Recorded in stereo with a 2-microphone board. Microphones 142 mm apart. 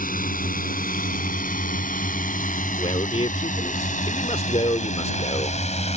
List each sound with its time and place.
0.0 s a drone: 75° left (ahead or behind); by 6.0 s 50° left (ahead or behind)
2.8 s a man speaking: 45° left (ahead or behind)